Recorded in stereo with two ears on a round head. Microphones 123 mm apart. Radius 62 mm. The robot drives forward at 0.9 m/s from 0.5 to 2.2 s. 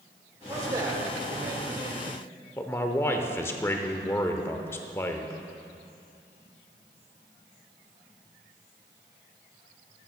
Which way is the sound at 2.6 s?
20° left (ahead or behind).